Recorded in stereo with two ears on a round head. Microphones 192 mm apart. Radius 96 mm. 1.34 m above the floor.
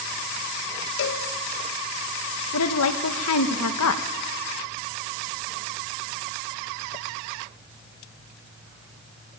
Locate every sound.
1.0 s a cowbell: 55° left (ahead or behind), 1.5 m
2.5 s a woman speaking: 85° left, 1.5 m